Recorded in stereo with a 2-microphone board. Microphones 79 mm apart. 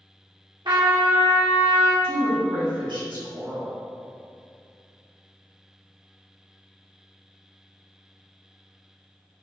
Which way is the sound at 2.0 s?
75° right (ahead or behind).